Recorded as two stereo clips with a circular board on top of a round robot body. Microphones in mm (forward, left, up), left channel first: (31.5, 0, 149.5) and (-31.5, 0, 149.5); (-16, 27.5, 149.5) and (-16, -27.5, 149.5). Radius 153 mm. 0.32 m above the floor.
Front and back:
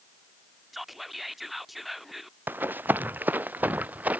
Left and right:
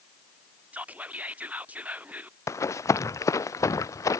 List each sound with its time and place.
0.7 s whispering: 95° right
2.5 s running footsteps: 120° left; by 4.2 s 110° left